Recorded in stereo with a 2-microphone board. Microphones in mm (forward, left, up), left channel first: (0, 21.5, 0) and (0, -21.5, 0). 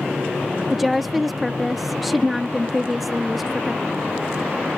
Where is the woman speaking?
Centre (ahead or behind).